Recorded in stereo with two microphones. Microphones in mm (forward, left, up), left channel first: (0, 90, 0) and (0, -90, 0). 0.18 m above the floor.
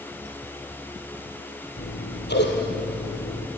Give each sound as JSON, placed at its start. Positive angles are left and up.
{"t": 1.8, "sound": "scissors", "side_deg": 75, "distance_m": 3.0}